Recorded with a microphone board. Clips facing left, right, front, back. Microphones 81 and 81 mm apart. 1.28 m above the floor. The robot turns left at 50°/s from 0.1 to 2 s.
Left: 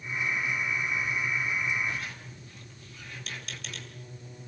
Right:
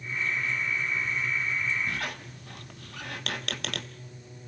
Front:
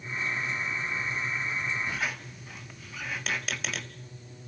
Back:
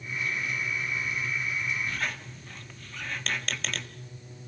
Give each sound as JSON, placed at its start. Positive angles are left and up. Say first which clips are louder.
{"t": 1.9, "sound": "a squeak", "louder": "right 2 dB, even", "azimuth_deg": -75, "distance_m": 1.2}